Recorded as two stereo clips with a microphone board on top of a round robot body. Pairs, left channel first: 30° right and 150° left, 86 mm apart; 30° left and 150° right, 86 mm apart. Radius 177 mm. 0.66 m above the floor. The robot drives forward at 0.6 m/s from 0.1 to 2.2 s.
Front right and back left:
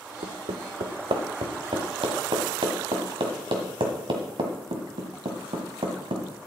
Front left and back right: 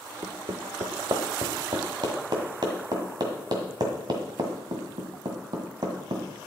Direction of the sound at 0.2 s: 150° left.